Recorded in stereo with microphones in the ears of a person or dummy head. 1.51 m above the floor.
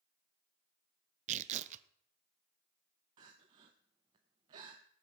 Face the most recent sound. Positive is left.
turn(degrees=-15)  # may be behind; listen again after turning